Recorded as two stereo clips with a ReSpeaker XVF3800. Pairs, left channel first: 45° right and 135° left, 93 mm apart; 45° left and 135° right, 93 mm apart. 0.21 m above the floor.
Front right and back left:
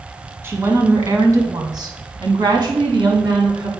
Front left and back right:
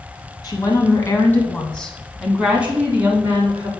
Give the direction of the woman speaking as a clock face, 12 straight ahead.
9 o'clock.